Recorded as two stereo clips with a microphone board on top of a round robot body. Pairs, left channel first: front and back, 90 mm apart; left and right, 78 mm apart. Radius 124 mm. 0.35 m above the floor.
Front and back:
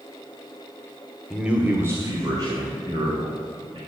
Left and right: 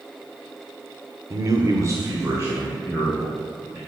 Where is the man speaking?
95° right, 1.5 m; by 3.8 s 150° right, 4 m.